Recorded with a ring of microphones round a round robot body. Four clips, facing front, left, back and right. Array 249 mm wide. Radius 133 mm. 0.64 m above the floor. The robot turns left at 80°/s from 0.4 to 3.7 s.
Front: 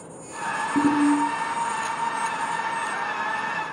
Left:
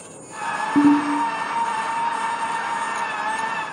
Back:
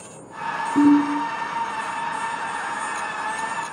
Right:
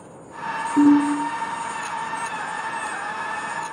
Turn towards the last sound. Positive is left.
turn(degrees=-155)